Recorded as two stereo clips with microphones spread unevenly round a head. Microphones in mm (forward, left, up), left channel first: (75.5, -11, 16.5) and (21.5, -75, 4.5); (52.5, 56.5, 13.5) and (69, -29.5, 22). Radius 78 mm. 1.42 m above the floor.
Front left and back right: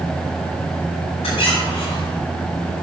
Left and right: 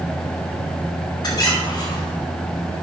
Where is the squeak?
65° left, 5 m.